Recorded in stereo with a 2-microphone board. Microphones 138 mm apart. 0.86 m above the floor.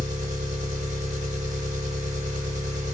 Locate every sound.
0.0 s an engine running: 55° right (ahead or behind), 1.4 m